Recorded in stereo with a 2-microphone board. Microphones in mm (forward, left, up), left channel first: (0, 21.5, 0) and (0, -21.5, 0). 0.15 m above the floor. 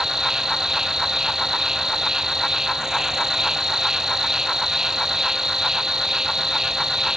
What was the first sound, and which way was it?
An insect, 15° right (ahead or behind).